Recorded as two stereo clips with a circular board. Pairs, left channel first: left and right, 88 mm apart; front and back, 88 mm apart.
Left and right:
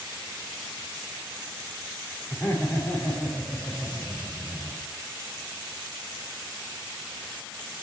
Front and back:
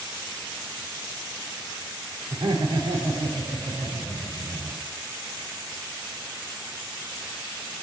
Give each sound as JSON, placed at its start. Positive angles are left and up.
{"t": 2.3, "sound": "laughter", "azimuth_deg": 160, "distance_m": 6.5}